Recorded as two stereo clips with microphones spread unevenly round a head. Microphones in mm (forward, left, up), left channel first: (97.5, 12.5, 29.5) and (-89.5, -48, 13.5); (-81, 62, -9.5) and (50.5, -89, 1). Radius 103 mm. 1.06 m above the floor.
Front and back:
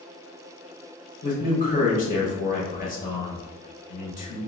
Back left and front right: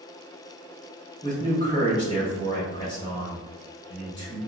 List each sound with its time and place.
1.2 s a man speaking: 65° left, 1.4 m